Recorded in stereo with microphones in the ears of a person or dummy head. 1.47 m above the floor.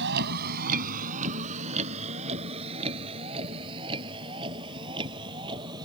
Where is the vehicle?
60° right (ahead or behind); by 5.8 s 25° right (ahead or behind).